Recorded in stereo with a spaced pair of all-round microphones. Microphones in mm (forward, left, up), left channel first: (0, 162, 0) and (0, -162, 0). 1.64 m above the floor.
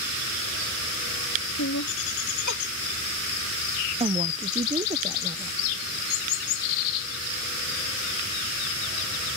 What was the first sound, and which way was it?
Laughter, 60° left (ahead or behind).